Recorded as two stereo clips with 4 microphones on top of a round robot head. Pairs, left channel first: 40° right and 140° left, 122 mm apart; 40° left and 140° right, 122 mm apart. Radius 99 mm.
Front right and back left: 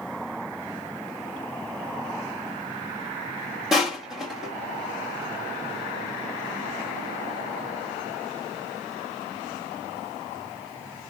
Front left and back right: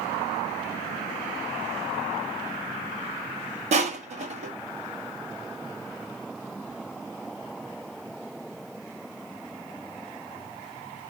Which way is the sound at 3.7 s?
135° right.